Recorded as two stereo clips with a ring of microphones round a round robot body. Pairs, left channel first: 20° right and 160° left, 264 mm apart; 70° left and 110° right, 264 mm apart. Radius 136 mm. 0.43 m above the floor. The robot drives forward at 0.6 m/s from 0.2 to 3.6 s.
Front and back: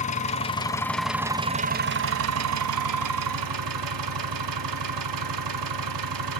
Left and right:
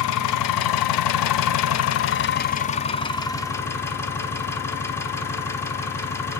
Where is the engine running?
45° left, 1.1 m; by 6.4 s 150° left, 1.4 m.